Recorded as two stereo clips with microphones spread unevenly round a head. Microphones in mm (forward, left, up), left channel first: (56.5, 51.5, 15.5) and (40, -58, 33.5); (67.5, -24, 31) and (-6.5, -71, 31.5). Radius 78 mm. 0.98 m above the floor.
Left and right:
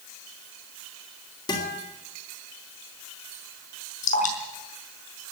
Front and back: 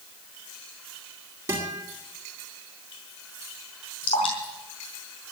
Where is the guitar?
145° left, 2.5 m.